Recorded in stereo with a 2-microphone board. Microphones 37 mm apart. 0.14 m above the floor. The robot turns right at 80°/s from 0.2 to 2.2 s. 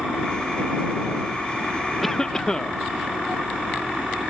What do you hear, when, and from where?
2.0 s a cough: centre (ahead or behind); by 2.8 s 15° left (ahead or behind)